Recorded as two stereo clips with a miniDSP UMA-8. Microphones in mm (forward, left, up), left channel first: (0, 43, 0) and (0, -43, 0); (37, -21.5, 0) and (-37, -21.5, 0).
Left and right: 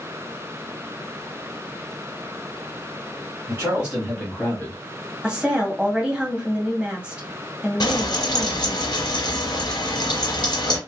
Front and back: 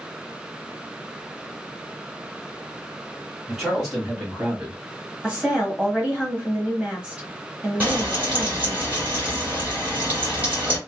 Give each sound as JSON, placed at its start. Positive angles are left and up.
{"t": 3.5, "sound": "a man speaking", "azimuth_deg": -95, "distance_m": 1.5}
{"t": 5.2, "sound": "a woman speaking", "azimuth_deg": -140, "distance_m": 1.2}
{"t": 7.8, "sound": "frying", "azimuth_deg": 115, "distance_m": 1.6}